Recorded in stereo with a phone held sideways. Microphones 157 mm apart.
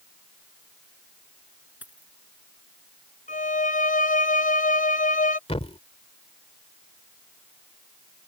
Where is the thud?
40° left (ahead or behind).